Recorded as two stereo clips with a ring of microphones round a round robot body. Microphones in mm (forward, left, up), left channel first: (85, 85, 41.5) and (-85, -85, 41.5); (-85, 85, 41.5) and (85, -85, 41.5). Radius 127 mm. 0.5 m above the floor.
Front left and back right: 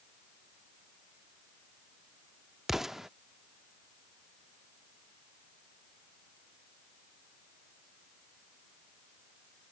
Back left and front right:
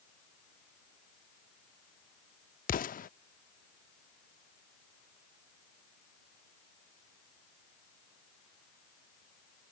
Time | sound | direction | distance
2.7 | an explosion | 140° left | ?